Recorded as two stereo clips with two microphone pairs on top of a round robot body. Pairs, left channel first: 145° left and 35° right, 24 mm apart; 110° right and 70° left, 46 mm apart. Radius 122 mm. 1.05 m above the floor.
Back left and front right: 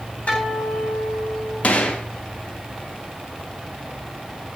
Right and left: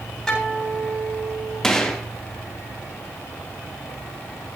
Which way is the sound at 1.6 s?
170° left.